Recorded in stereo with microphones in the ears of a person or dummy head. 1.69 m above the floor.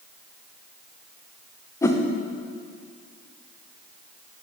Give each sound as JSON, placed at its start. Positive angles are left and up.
{"t": 1.8, "sound": "a whoosh", "side_deg": 10, "distance_m": 0.5}